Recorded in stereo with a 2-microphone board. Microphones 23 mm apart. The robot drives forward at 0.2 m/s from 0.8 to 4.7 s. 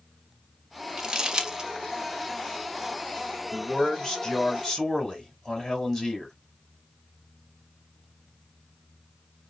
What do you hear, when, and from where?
1.0 s crumpling: 35° right (ahead or behind), 0.8 m; by 1.7 s 40° right (ahead or behind), 0.7 m
3.5 s a man speaking: 20° left (ahead or behind), 1.3 m